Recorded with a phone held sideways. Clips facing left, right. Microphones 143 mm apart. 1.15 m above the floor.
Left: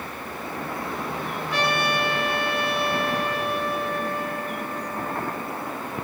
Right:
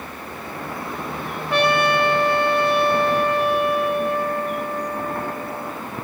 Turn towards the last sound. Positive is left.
turn(degrees=-60)  # may be behind; listen again after turning